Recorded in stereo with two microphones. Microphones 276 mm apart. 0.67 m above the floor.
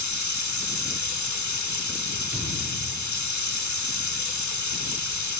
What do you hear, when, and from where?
0.0 s running water: 85° left, 0.8 m
2.3 s a thud: 5° right (ahead or behind), 4.5 m